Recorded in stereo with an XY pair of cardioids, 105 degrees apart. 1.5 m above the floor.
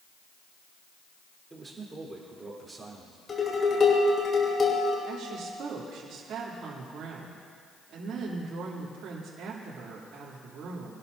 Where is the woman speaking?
65° right, 3 m.